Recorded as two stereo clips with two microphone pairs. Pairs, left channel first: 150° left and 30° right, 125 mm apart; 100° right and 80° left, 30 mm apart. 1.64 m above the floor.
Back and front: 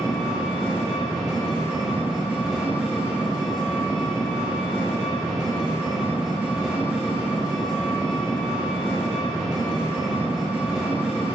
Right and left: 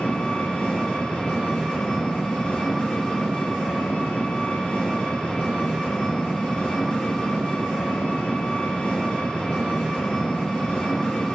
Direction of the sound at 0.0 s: 110° right.